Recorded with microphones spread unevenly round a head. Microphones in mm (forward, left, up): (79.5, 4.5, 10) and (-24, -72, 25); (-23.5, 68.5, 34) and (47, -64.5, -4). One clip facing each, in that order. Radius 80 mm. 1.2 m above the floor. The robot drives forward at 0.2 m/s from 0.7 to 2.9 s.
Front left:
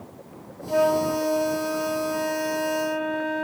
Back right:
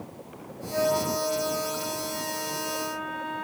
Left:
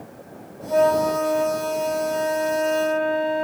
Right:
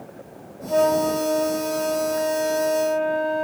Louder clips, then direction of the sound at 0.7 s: Front left 5 dB, left 1 dB; 20° left.